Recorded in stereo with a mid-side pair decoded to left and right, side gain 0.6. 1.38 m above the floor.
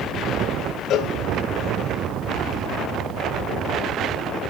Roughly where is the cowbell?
Ahead left.